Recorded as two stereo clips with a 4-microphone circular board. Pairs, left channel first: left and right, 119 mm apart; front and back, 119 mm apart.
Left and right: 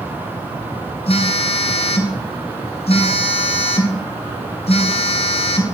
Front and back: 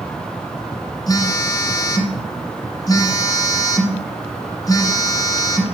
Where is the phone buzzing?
60° left, 1.5 m.